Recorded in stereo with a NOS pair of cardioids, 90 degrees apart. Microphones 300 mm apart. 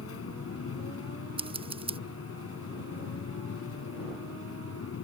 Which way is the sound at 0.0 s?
50° left.